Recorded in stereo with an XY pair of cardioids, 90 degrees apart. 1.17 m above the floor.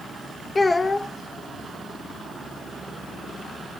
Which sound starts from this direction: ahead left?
A child speaking, at 0.6 s.